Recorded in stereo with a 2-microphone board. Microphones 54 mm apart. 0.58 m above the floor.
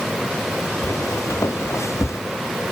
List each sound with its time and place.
0.8 s footsteps: 70° left (ahead or behind); by 2.2 s 60° left (ahead or behind)